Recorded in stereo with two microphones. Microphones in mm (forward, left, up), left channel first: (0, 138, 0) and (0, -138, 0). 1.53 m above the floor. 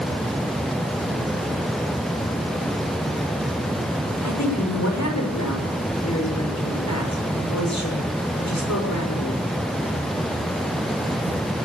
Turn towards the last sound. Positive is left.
turn(degrees=80)